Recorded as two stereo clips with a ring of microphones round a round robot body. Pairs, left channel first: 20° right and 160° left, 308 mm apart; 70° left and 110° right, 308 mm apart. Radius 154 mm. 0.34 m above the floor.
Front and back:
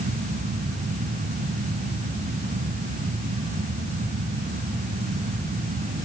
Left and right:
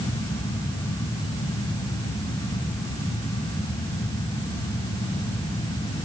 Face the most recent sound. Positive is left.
No sound to turn to.